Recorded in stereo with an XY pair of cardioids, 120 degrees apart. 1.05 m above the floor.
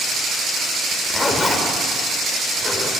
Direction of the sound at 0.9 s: 20° left.